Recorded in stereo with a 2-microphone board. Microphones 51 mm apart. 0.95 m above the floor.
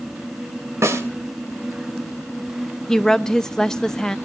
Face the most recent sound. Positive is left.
turn(degrees=10)  # may be behind; listen again after turning